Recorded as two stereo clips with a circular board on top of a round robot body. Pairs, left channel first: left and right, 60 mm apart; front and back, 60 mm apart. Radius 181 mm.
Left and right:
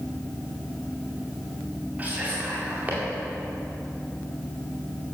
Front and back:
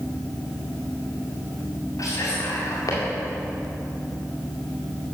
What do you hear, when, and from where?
2.0 s whispering: 30° right, 2 m